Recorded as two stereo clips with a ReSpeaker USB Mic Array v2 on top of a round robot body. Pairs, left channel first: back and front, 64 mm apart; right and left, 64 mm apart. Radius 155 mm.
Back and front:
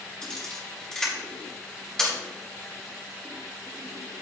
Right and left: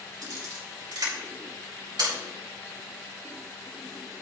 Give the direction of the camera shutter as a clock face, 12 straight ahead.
9 o'clock.